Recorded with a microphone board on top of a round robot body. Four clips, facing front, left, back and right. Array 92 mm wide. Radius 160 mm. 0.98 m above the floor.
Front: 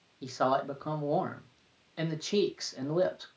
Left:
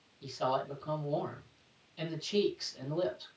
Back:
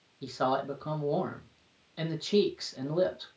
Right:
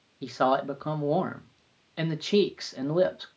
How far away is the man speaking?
About 2.5 m.